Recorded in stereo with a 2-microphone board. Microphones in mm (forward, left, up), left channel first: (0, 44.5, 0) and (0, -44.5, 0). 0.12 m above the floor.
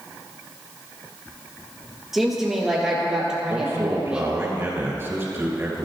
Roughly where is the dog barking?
No dog barking in this recording.